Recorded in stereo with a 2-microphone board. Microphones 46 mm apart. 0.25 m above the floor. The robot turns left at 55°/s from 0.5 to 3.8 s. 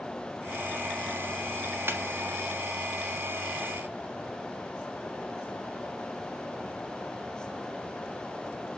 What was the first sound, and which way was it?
A snare drum, 50° right (ahead or behind).